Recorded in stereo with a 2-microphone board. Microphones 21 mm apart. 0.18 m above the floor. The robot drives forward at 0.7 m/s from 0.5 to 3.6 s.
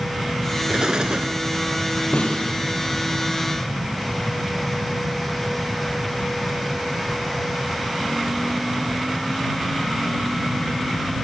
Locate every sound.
0.7 s an explosion: 40° right (ahead or behind), 1.1 m; by 1.4 s 55° right (ahead or behind), 0.8 m
2.1 s a snare drum: 65° left (ahead or behind), 5 m; by 2.5 s 60° left (ahead or behind), 5.5 m